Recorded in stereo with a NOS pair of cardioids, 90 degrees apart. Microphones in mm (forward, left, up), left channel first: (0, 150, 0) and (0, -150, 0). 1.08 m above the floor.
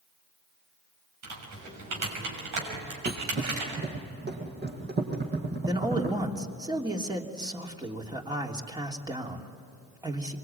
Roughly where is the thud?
Ahead right.